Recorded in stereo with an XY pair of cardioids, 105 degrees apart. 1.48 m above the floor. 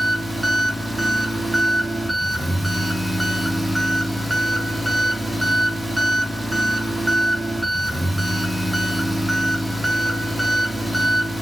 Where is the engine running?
5° right, 0.9 m.